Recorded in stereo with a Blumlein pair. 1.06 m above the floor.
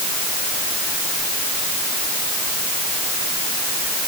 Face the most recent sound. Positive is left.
No sound to turn to.